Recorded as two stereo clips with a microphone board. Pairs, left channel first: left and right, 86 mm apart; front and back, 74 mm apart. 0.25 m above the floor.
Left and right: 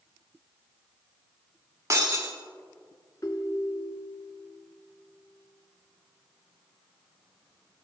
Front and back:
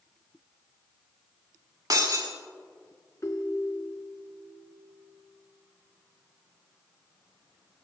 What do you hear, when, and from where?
1.9 s breaking glass: 140° right, 3 m
3.2 s a ringtone: 45° left, 1.3 m